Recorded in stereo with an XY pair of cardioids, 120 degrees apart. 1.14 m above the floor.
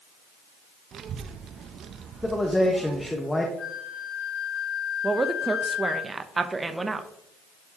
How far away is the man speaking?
About 1.3 m.